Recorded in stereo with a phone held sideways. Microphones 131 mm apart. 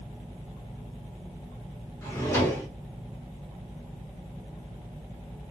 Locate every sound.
2.0 s a drawer: 20° left (ahead or behind), 1.9 m